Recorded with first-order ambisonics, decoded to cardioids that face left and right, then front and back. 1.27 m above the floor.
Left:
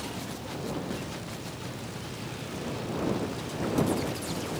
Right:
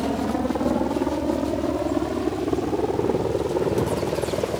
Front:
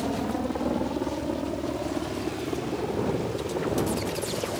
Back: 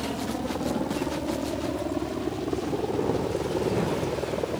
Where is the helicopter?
75° right; by 4.6 s 100° right.